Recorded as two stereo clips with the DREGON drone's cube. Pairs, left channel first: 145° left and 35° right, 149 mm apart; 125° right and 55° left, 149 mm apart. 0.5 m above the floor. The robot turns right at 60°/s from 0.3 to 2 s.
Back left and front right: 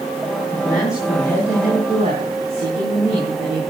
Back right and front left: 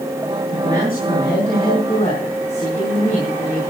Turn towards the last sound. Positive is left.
turn(degrees=-80)